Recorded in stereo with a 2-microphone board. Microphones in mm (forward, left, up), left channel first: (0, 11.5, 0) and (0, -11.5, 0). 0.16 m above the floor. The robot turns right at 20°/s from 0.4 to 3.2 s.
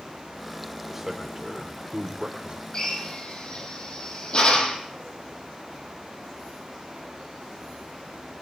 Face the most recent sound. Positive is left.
turn(degrees=40)  # may be behind; listen again after turning